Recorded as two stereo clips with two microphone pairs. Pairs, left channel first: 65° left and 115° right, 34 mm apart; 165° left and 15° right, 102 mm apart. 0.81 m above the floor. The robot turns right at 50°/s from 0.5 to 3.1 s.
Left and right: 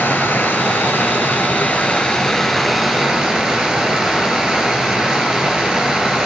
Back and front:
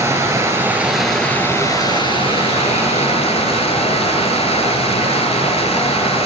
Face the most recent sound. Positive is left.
turn(degrees=175)